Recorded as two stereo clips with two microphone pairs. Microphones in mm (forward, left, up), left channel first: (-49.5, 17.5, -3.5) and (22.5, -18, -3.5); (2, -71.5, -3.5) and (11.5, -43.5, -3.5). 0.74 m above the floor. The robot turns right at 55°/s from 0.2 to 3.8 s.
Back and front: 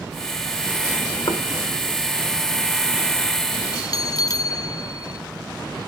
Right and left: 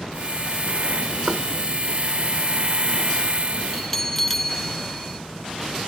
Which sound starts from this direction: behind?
A bell, at 3.7 s.